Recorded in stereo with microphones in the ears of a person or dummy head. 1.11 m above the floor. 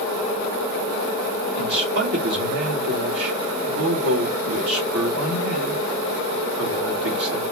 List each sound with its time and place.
1.6 s a man speaking: 80° right, 1.8 m